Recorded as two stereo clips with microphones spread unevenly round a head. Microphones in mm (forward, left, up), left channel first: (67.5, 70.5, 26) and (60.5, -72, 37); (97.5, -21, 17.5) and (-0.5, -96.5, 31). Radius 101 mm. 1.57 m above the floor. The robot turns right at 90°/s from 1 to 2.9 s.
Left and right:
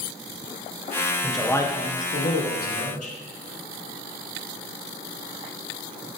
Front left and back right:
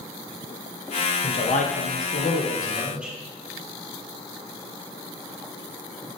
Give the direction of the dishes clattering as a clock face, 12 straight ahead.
No dishes clattering in this recording.